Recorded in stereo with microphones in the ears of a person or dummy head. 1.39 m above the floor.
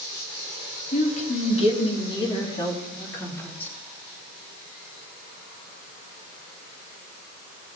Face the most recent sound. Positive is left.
turn(degrees=10)  # may be behind; listen again after turning